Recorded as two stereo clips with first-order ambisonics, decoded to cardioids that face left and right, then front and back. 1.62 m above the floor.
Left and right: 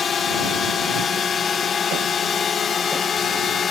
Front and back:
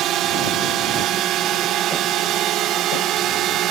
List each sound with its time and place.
0.0 s a drone: 150° left